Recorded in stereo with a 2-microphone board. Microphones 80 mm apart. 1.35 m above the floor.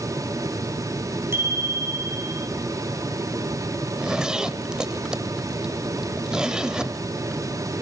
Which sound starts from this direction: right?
A bicycle bell, at 1.3 s.